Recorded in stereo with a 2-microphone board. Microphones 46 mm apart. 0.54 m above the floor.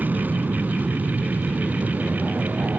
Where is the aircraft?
40° right (ahead or behind).